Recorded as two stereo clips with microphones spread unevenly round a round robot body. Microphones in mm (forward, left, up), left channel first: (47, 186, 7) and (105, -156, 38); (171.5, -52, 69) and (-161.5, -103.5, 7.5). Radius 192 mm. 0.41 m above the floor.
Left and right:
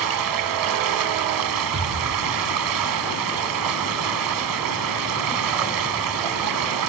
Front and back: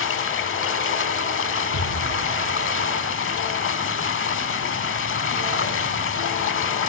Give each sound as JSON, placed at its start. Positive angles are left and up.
{"t": 0.0, "sound": "running water", "azimuth_deg": -45, "distance_m": 1.3}
{"t": 1.7, "sound": "an explosion", "azimuth_deg": -35, "distance_m": 2.5}